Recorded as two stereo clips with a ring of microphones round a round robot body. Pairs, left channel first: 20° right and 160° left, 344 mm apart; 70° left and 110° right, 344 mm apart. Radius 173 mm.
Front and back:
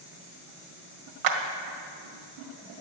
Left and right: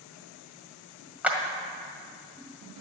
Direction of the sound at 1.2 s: 160° left.